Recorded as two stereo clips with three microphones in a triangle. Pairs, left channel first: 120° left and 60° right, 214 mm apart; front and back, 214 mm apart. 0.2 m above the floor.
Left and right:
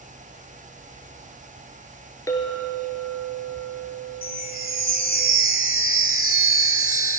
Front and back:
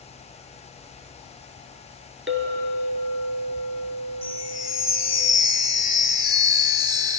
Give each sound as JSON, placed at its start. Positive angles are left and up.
{"t": 2.3, "sound": "a clink", "azimuth_deg": -165, "distance_m": 1.6}
{"t": 4.2, "sound": "a chime", "azimuth_deg": 120, "distance_m": 1.1}